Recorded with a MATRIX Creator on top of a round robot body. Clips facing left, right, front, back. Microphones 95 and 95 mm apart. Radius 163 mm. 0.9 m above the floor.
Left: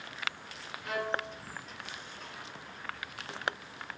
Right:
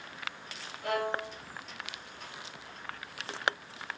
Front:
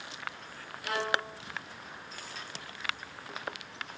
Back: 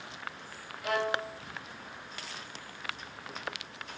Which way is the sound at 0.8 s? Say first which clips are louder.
Right 2 dB, back 1 dB; 125° right.